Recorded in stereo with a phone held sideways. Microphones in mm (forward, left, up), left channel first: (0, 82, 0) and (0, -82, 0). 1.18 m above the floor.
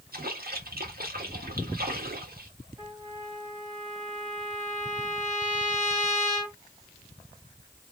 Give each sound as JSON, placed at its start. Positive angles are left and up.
{"t": 0.1, "sound": "a splash", "side_deg": -70, "distance_m": 1.4}
{"t": 2.8, "sound": "a trumpet", "side_deg": -25, "distance_m": 1.5}